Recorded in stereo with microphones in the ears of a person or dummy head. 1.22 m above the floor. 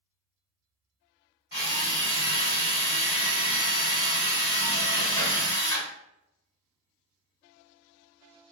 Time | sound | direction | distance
1.5 | a drill | 30° left (ahead or behind) | 1.6 m